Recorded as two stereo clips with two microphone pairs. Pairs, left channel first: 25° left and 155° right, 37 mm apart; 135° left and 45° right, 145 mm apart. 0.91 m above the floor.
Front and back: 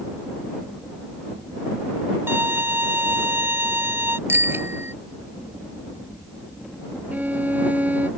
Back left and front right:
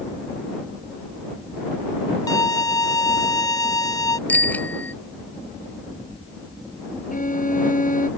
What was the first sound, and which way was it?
A violin, 160° right.